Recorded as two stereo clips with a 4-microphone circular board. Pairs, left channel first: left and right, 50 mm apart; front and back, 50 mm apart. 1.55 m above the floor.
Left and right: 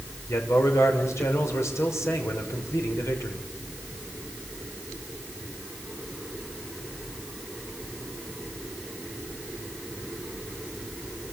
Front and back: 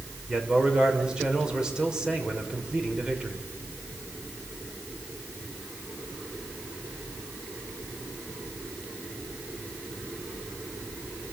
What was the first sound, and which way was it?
A man speaking, 105° left.